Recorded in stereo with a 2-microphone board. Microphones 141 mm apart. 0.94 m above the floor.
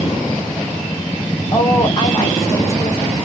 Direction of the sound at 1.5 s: 35° left (ahead or behind).